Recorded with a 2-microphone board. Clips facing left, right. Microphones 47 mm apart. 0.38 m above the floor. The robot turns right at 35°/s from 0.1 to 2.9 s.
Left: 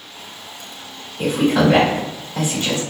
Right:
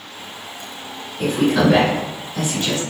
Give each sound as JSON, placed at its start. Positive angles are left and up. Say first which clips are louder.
{"t": 1.2, "sound": "a woman speaking", "louder": "left 1 dB", "side_deg": 5, "distance_m": 1.4}